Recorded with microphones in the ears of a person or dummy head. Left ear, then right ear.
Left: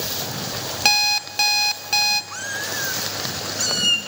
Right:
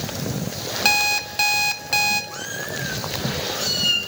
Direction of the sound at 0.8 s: 20° left (ahead or behind).